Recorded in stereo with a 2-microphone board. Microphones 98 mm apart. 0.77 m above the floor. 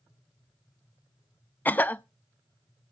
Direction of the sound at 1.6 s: 20° left (ahead or behind).